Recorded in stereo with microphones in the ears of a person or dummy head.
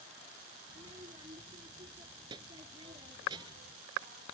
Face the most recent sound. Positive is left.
turn(degrees=-20)  # may be behind; listen again after turning